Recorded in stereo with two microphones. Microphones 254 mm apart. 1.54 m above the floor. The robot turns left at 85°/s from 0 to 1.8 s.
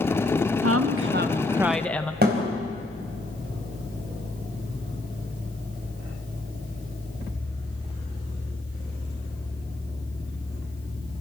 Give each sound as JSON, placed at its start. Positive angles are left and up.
{"t": 0.6, "sound": "a woman speaking", "azimuth_deg": -85, "distance_m": 1.2}
{"t": 2.2, "sound": "a thud", "side_deg": -40, "distance_m": 4.0}